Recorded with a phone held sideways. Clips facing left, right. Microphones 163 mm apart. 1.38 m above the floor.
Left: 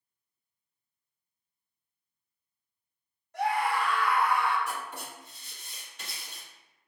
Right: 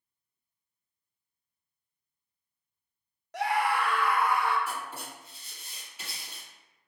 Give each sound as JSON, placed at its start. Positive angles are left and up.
{"t": 3.3, "sound": "a scream", "side_deg": -85, "distance_m": 0.7}
{"t": 4.7, "sound": "writing", "side_deg": -5, "distance_m": 1.6}